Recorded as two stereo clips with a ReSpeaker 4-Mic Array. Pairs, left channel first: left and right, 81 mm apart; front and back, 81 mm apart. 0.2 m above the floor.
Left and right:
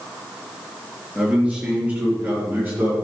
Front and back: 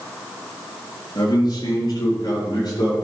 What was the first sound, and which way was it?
A man speaking, 15° right.